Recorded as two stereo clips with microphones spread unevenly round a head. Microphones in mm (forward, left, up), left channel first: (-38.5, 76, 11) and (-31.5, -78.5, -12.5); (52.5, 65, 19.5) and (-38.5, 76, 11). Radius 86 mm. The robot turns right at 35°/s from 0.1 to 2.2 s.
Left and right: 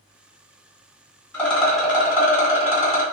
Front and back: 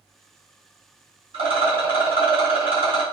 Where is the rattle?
170° left, 1.4 m; by 3.0 s 160° right, 1.4 m.